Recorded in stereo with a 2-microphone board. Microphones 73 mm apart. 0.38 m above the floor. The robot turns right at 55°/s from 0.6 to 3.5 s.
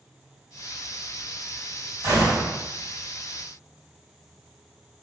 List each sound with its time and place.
2.0 s a gunshot: 50° right (ahead or behind), 1.6 m